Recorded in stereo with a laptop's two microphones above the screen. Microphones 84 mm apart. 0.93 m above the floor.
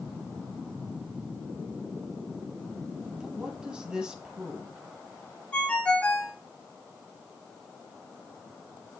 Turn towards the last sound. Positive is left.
turn(degrees=15)  # may be behind; listen again after turning